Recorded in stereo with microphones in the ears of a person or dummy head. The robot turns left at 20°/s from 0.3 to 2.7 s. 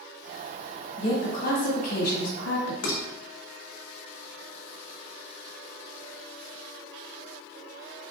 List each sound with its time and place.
1.0 s a woman speaking: 145° left, 1.3 m; by 2.7 s 110° left, 1.3 m
2.8 s dishes clattering: 55° left (ahead or behind), 1.0 m